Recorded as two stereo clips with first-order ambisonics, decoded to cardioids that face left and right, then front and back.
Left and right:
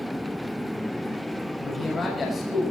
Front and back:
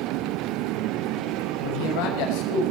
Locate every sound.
1.6 s a man speaking: 15° left, 6.5 m